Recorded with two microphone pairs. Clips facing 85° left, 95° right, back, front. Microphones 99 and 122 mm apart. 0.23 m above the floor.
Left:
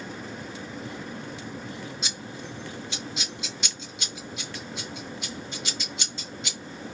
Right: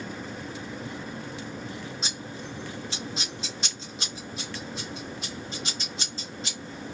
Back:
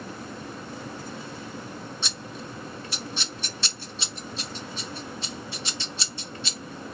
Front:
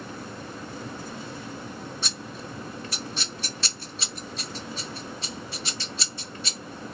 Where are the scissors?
125° right, 2.5 m.